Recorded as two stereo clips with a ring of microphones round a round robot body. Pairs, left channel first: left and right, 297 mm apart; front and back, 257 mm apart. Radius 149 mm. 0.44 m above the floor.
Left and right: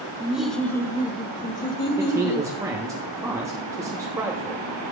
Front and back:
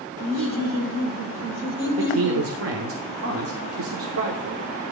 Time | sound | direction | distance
0.2 | laughter | 170° right | 1.8 m
2.0 | a man speaking | 170° right | 1.4 m